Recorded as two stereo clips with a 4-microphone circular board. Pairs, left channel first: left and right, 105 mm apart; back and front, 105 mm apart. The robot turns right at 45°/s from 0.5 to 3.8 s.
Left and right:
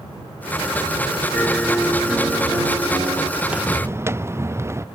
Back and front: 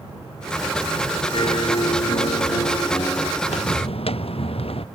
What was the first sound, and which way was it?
A piano, 155° left.